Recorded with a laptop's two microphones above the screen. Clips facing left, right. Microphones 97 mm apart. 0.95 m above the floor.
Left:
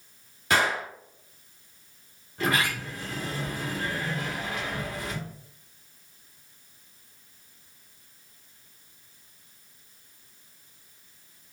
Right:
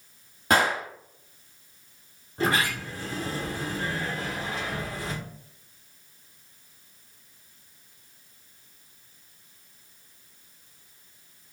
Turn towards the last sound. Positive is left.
turn(degrees=-30)  # may be behind; listen again after turning